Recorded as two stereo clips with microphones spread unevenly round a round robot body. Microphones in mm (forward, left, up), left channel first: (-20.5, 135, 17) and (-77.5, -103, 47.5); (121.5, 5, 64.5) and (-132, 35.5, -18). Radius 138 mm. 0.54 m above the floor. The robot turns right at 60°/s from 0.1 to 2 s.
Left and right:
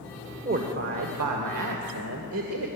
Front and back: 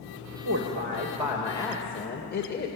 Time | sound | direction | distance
0.5 | a woman speaking | 160° right | 2 m